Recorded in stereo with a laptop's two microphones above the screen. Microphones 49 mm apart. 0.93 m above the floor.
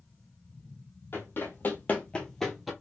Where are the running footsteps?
55° left (ahead or behind), 1.4 m; by 2.7 s centre (ahead or behind), 1.1 m.